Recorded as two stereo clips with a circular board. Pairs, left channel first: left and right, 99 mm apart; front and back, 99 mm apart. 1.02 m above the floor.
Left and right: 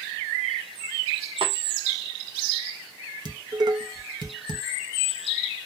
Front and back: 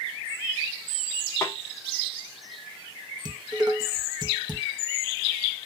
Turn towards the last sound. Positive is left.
turn(degrees=-135)